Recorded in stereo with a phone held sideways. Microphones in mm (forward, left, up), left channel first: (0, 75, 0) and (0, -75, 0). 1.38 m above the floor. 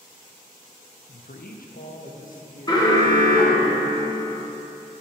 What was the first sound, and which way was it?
A man speaking, 80° left.